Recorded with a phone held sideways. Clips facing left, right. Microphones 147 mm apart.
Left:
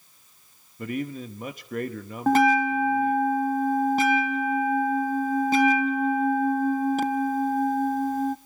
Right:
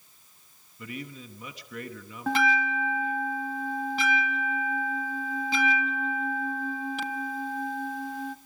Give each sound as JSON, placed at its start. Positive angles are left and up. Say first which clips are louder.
{"t": 0.8, "sound": "a man speaking", "louder": "left 9 dB", "side_deg": 50, "distance_m": 1.2}
{"t": 2.3, "sound": "a bell", "louder": "left 7 dB", "side_deg": 45, "distance_m": 0.7}